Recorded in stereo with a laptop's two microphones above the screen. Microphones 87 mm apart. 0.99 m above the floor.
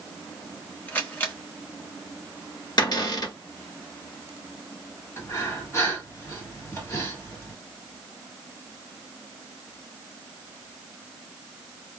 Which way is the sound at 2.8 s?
50° left (ahead or behind).